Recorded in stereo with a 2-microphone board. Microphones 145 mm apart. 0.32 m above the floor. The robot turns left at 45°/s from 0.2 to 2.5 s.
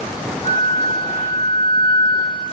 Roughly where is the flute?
Behind left.